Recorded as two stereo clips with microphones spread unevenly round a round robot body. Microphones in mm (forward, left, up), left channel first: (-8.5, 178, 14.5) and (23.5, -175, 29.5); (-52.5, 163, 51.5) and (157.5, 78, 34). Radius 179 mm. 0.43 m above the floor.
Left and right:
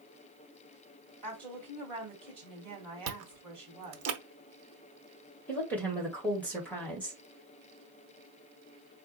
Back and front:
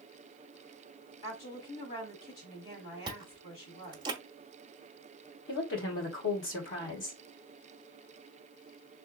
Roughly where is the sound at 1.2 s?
Behind.